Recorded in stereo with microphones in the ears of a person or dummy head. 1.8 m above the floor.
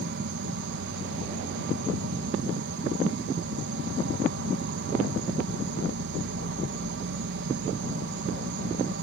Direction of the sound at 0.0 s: 60° right (ahead or behind).